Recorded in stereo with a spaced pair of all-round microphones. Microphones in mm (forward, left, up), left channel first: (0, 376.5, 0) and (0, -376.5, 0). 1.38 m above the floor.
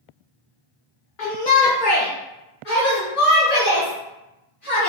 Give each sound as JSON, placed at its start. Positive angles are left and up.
{"t": 1.2, "sound": "a shout", "side_deg": 85, "distance_m": 0.9}